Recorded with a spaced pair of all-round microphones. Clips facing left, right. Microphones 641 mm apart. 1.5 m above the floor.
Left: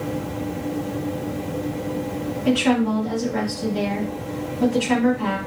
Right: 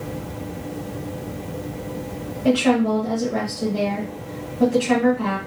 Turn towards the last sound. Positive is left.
turn(degrees=-80)